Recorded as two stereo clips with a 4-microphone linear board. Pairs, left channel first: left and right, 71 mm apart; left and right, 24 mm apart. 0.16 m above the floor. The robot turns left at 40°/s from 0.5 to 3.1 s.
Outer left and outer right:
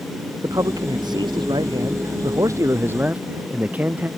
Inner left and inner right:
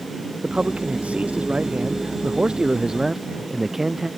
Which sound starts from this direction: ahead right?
A man speaking, at 0.4 s.